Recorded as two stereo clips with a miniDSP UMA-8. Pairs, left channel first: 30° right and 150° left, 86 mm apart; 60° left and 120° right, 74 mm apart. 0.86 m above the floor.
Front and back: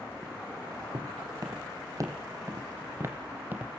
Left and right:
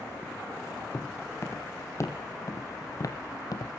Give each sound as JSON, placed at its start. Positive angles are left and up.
{"t": 0.9, "sound": "footsteps", "azimuth_deg": 110, "distance_m": 2.5}